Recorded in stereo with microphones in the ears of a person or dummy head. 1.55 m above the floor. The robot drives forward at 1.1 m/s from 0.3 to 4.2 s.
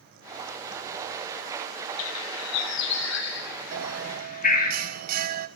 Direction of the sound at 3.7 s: 70° right (ahead or behind).